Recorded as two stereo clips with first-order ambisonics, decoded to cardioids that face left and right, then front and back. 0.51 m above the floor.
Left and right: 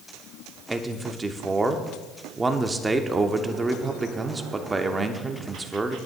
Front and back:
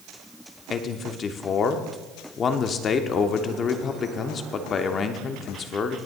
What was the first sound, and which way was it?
A man speaking, 25° right.